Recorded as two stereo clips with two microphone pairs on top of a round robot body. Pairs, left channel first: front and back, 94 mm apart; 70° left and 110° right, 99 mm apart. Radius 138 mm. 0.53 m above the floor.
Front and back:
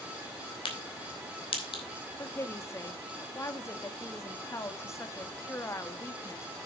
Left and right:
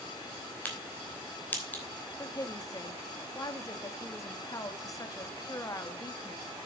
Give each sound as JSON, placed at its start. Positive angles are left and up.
{"t": 0.7, "sound": "a crack", "azimuth_deg": 0, "distance_m": 3.5}
{"t": 2.2, "sound": "a woman speaking", "azimuth_deg": 35, "distance_m": 1.6}